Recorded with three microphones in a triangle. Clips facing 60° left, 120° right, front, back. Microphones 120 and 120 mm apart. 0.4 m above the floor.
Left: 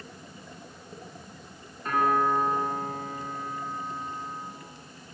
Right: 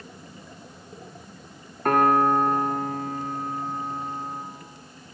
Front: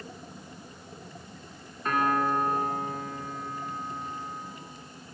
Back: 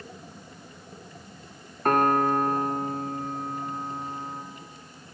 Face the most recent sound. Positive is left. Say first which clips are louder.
# right 5 dB, back 4 dB
turn(degrees=-145)